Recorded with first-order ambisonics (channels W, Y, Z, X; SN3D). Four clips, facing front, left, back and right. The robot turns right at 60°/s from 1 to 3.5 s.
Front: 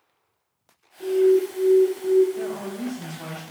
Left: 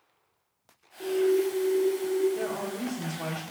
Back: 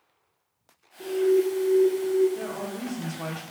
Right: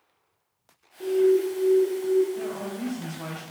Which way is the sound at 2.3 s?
120° left.